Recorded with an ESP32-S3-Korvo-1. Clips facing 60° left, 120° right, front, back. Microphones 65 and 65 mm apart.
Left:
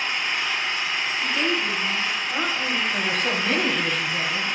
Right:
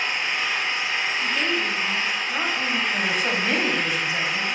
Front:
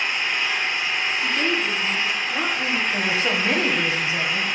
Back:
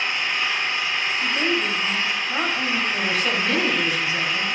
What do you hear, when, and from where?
0.0 s an engine running: 75° right, 2.5 m
1.2 s a woman speaking: 155° left, 1.2 m
2.9 s a woman speaking: 45° right, 1.1 m